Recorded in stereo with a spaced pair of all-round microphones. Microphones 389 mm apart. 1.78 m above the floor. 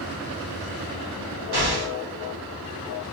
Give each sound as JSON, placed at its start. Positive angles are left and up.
{"t": 1.5, "sound": "an explosion", "side_deg": -75, "distance_m": 1.7}